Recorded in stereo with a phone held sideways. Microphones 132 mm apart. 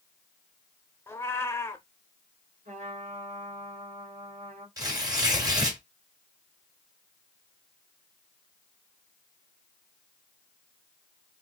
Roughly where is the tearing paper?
Right.